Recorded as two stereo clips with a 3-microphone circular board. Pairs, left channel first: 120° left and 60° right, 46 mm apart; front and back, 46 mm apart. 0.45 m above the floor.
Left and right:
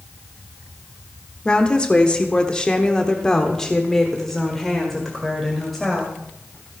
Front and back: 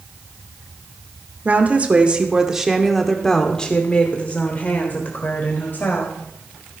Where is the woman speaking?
170° left, 1.4 m; by 6.1 s 30° left, 2.5 m.